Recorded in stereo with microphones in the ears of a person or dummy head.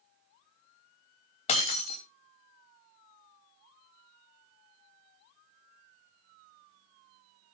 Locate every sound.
1.5 s breaking glass: 35° left (ahead or behind), 3 m